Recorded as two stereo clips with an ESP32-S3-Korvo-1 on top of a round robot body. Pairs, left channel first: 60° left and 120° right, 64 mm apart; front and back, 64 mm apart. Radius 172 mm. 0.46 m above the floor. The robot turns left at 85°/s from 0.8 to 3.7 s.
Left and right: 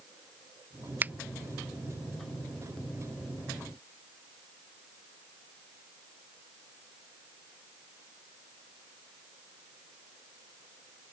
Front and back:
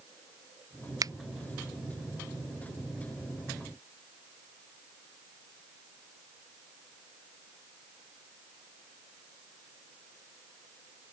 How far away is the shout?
No shout in this recording.